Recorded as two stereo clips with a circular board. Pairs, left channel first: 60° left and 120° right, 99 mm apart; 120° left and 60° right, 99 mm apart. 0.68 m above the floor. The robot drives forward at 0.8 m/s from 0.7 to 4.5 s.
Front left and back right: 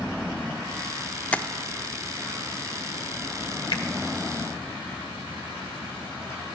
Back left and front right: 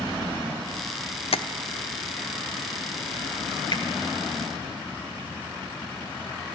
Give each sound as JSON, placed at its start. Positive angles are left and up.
{"t": 1.3, "sound": "tapping", "azimuth_deg": 135, "distance_m": 0.5}
{"t": 3.7, "sound": "a finger snap", "azimuth_deg": 95, "distance_m": 1.5}